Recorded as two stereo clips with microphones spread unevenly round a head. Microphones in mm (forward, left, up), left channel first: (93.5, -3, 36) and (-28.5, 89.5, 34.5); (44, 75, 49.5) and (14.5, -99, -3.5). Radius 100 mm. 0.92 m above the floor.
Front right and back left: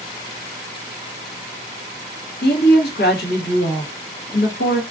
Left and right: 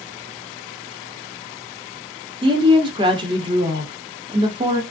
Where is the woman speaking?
45° right, 1.1 m.